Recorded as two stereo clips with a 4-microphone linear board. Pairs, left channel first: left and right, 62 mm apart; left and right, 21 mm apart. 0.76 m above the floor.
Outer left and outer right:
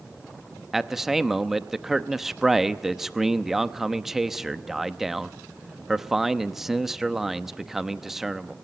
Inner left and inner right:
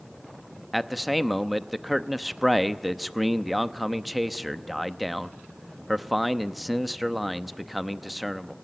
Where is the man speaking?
5° right (ahead or behind), 0.7 m.